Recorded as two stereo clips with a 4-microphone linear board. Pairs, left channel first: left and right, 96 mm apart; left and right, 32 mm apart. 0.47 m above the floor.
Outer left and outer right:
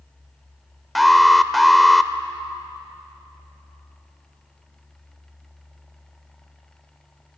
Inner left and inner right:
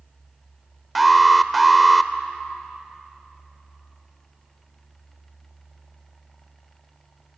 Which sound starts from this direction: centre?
An alarm, at 0.9 s.